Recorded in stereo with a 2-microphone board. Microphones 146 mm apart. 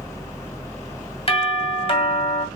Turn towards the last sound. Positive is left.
turn(degrees=45)  # may be behind; listen again after turning